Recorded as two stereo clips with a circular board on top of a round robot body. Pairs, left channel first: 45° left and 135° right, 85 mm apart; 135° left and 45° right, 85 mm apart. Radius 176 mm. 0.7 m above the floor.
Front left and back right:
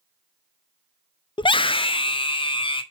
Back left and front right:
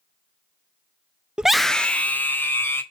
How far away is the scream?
About 0.6 m.